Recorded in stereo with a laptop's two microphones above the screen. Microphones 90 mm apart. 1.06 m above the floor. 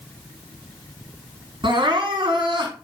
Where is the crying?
65° right (ahead or behind), 6.5 m.